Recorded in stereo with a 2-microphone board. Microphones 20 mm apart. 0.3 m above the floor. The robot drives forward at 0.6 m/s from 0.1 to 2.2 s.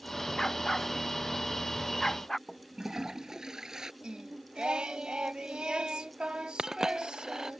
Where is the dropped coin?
30° right (ahead or behind).